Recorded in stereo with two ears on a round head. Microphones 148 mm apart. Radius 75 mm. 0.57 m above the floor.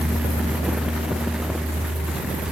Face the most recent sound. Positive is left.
No sound to turn to.